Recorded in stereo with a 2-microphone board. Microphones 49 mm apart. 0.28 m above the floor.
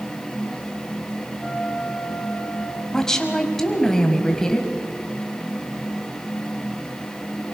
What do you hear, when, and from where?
1.4 s a flute: 15° right (ahead or behind), 6.5 m
2.9 s a woman speaking: 10° left (ahead or behind), 1.6 m